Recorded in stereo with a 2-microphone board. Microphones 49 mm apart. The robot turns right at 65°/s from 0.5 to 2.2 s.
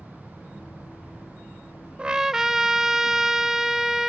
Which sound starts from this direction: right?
A trumpet, at 2.0 s.